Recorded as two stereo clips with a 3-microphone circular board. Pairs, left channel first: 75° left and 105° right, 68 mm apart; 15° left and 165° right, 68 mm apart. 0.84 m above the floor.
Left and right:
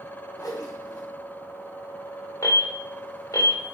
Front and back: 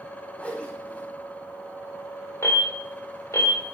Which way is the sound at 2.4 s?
50° left.